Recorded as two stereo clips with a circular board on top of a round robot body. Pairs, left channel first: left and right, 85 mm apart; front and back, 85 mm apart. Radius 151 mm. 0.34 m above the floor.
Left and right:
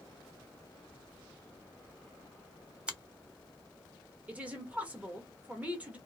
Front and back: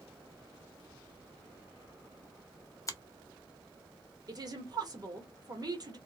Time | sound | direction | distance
2.9 | a finger snap | 15° right | 0.8 m
4.3 | a woman speaking | 160° right | 1.2 m